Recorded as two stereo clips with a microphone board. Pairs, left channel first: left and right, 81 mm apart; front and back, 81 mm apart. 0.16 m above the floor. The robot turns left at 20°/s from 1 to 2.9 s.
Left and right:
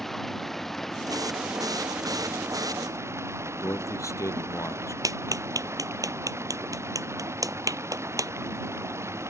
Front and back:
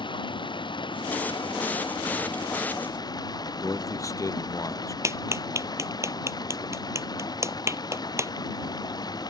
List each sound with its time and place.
0.0 s running water: 5° left; by 9.3 s 35° right
3.6 s a man speaking: 45° left
5.0 s a clap: 130° right